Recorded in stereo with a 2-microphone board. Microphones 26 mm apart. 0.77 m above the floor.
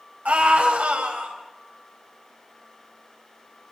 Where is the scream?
80° right, 5 m.